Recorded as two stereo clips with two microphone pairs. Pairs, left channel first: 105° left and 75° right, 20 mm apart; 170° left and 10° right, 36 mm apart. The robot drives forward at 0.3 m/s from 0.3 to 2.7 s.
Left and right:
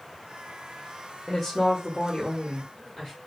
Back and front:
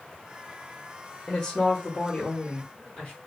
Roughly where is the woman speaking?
Behind left.